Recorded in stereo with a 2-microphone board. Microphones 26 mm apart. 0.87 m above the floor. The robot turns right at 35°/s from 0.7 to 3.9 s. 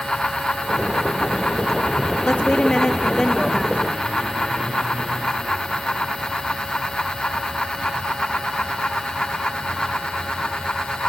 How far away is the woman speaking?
About 1.3 m.